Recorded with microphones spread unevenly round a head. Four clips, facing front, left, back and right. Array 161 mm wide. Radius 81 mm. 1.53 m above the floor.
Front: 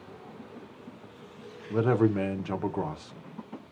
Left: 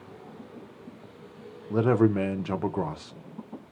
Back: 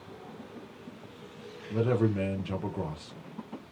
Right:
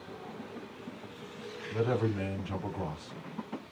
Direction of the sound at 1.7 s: 80° left.